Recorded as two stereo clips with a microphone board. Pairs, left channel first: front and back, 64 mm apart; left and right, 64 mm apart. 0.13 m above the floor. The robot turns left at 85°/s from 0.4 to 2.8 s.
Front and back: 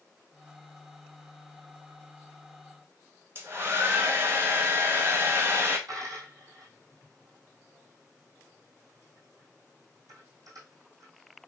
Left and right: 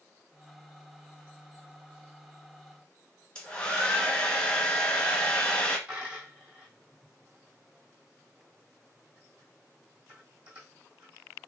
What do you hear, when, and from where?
3.4 s a hair dryer: 155° left, 1.2 m
5.9 s a dropped coin: 160° right, 2.5 m